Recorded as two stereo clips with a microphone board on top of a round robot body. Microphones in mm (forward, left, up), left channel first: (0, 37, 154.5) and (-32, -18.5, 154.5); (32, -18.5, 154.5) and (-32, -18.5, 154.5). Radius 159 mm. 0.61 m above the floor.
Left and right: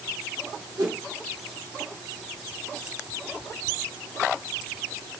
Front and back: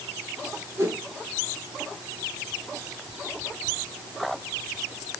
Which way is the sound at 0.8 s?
130° right.